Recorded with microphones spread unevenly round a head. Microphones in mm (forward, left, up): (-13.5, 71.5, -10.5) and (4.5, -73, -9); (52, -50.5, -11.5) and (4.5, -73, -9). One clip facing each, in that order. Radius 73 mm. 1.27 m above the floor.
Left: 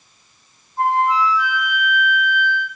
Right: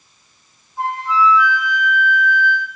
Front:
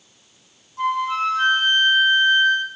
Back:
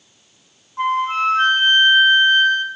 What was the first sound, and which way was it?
A flute, 100° right.